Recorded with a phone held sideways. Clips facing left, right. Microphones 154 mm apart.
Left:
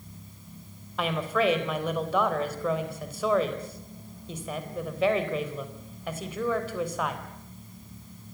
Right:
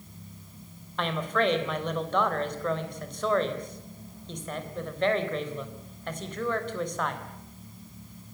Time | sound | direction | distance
1.0 | a woman speaking | 5° left (ahead or behind) | 3.5 m